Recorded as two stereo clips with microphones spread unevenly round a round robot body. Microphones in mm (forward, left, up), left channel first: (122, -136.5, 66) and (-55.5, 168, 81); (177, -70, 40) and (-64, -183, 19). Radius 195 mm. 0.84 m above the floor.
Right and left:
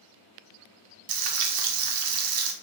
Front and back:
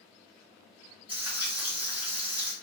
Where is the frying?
125° left, 0.6 m.